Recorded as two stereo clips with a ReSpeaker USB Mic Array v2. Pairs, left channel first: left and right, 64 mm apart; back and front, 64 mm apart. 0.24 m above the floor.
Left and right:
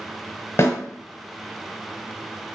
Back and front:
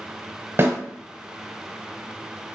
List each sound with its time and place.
0.6 s a snare drum: 45° left, 1.1 m